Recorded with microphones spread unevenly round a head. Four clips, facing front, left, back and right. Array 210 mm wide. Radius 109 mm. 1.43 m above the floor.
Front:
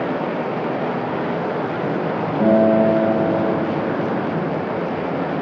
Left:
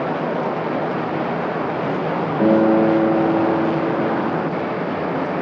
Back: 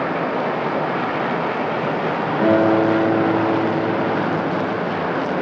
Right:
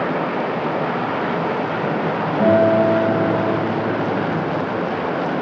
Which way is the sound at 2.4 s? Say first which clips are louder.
Even, front 1 dB; 105° left.